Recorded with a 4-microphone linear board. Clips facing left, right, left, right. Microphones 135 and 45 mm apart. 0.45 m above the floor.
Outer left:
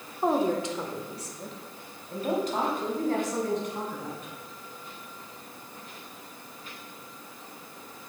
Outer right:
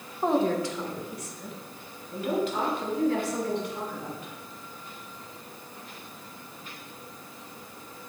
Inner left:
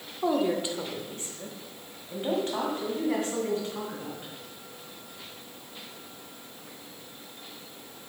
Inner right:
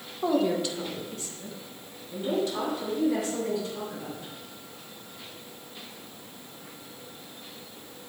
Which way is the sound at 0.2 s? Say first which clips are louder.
Outer right 1 dB, inner right 1 dB; 5° left (ahead or behind).